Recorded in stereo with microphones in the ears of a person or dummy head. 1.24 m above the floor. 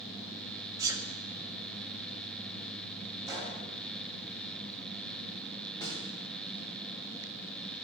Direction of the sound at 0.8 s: 20° right (ahead or behind).